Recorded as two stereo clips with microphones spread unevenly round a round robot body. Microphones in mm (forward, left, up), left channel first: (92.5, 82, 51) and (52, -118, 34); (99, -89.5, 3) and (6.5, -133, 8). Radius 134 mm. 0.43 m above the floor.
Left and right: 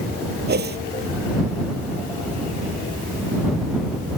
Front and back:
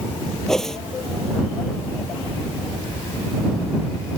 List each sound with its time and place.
0.5 s a whoosh: 60° right